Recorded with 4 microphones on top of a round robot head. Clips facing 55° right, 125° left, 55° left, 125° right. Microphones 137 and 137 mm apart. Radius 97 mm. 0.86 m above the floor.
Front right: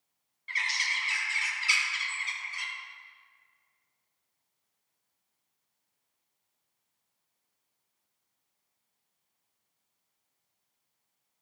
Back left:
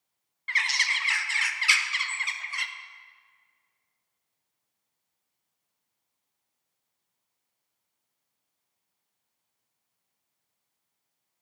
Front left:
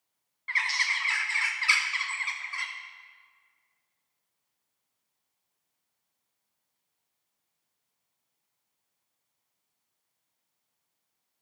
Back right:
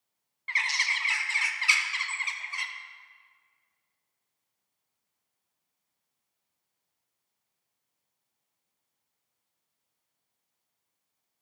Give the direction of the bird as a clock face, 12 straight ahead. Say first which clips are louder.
Back left 4 dB, front left 1 dB; 7 o'clock.